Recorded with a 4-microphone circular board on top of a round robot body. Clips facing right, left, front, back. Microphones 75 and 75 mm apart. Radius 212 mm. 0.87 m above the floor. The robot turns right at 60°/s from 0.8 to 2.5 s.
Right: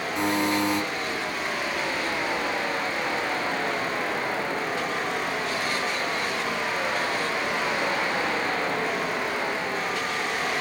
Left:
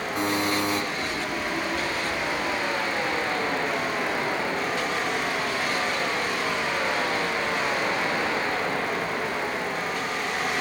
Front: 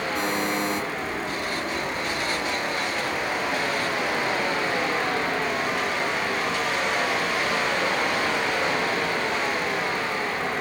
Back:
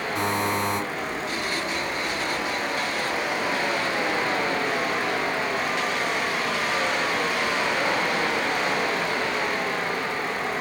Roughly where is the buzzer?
Behind left.